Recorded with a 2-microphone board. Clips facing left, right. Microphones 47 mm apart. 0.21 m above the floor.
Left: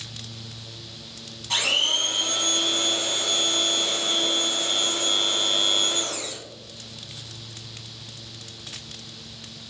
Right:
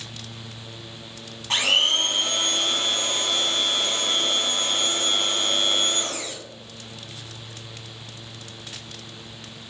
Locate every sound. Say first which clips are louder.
1.5 s a blender: right 3 dB; 35° right (ahead or behind), 0.7 m